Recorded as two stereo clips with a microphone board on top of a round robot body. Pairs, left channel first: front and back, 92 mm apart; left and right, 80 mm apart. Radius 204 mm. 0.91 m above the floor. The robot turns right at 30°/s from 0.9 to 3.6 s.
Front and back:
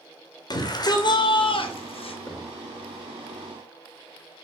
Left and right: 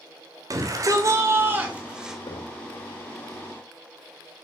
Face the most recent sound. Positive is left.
turn(degrees=115)